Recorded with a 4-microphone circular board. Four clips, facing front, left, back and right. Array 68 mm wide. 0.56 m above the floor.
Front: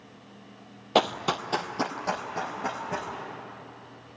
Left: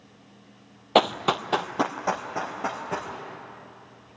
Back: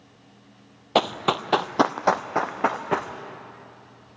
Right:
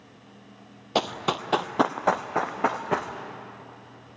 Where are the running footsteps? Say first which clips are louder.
Left 5 dB, back 2 dB; 105° left, 0.6 m; by 3.1 s 145° right, 1.6 m.